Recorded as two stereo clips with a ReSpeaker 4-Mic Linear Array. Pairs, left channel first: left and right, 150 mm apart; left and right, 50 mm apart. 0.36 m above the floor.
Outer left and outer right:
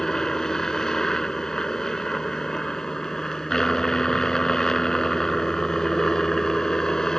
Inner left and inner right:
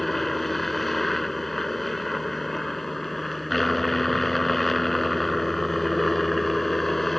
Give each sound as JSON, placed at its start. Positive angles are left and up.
{"t": 0.0, "sound": "a helicopter", "side_deg": 5}